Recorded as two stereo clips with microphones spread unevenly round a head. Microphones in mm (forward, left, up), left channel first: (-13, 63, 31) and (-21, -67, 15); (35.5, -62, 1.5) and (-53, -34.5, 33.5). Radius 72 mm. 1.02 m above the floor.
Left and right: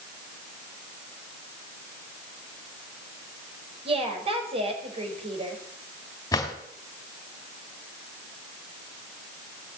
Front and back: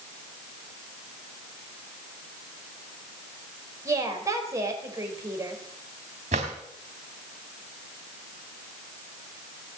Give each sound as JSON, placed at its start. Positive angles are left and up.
{"t": 3.9, "sound": "a woman speaking", "azimuth_deg": -140, "distance_m": 4.5}
{"t": 6.3, "sound": "a drawer", "azimuth_deg": 150, "distance_m": 3.0}